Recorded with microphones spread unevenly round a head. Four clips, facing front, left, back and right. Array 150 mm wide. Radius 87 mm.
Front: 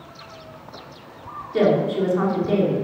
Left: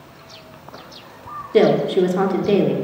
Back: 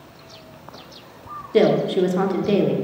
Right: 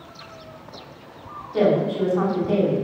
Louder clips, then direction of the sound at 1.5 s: Left 5 dB, back 2 dB; 125° left.